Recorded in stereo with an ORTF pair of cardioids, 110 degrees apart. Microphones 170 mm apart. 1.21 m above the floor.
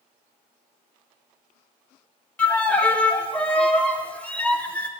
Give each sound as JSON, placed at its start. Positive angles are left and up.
{"t": 2.4, "sound": "a violin", "azimuth_deg": 10, "distance_m": 0.6}